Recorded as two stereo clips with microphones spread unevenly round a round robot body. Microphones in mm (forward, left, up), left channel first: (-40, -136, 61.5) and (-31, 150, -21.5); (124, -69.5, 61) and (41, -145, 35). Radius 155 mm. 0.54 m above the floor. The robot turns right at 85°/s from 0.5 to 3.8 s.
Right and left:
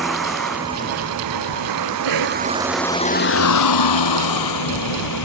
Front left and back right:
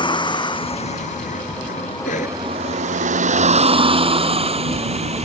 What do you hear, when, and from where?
0.0 s a vehicle: 5° right; by 5.2 s 115° right
2.0 s a cough: 75° left; by 2.4 s 110° left